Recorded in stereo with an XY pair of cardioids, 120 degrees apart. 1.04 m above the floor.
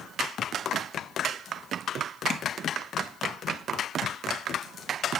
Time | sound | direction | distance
2.3 | tapping | 35° left | 1.3 m